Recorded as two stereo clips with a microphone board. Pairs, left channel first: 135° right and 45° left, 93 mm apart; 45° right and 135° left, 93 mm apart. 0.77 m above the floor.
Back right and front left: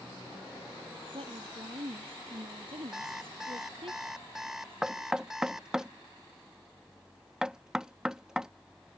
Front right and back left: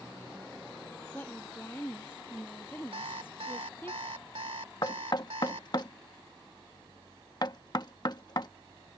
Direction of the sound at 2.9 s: 130° left.